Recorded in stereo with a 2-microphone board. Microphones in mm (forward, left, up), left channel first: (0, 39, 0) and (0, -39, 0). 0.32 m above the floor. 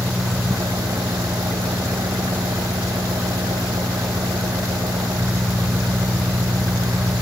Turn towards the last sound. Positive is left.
turn(degrees=-75)  # may be behind; listen again after turning